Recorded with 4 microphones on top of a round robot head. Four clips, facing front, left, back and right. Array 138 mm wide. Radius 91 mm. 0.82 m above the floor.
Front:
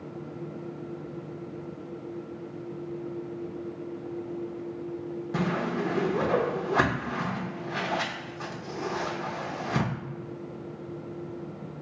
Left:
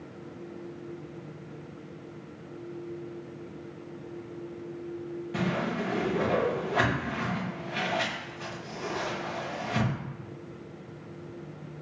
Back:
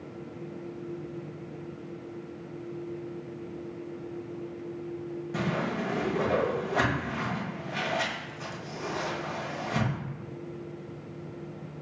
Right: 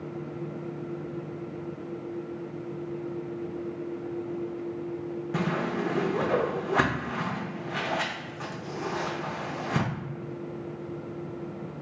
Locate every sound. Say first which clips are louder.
5.3 s a whoosh: right 1 dB, front 2 dB; 50° right, 0.8 m